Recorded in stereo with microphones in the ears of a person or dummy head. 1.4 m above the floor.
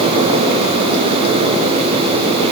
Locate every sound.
Only background noise.